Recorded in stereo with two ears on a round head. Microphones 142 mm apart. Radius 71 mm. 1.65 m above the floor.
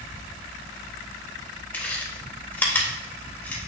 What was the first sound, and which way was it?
Chewing, 10° left (ahead or behind).